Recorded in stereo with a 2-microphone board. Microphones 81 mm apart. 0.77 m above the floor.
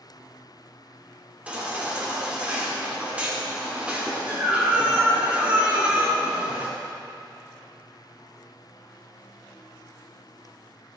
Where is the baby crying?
15° right (ahead or behind), 1.8 m.